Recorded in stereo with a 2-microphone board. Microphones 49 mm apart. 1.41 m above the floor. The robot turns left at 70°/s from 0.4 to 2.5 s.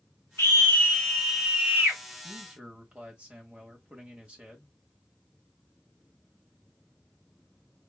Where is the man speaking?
40° right (ahead or behind), 1.1 m; by 4.8 s 25° right (ahead or behind), 1.1 m.